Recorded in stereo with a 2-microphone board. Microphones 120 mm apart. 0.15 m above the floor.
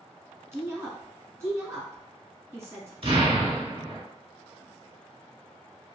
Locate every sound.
0.5 s a woman speaking: 20° right (ahead or behind), 1.3 m
3.0 s an explosion: 50° right (ahead or behind), 1.3 m